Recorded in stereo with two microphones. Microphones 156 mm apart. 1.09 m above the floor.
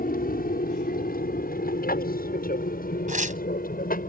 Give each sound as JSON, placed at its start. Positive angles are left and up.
{"t": 0.0, "sound": "an aircraft", "side_deg": 65}
{"t": 3.1, "sound": "tearing paper", "side_deg": -55}